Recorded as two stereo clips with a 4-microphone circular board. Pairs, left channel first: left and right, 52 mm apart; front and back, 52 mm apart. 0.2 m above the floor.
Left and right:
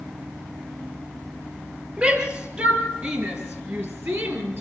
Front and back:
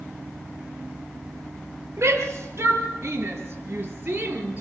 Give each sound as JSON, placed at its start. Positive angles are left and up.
{"t": 2.0, "sound": "a shout", "azimuth_deg": -150, "distance_m": 4.5}